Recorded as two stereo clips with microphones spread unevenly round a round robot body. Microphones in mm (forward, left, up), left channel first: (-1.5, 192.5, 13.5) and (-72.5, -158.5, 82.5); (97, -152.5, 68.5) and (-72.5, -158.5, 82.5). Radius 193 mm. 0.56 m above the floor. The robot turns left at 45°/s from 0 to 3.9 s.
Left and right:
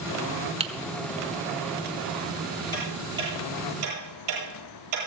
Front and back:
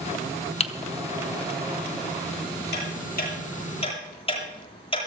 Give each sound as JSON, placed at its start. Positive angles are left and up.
{"t": 0.6, "sound": "typing on a keyboard", "azimuth_deg": -20, "distance_m": 1.0}
{"t": 2.7, "sound": "ticking", "azimuth_deg": 0, "distance_m": 9.0}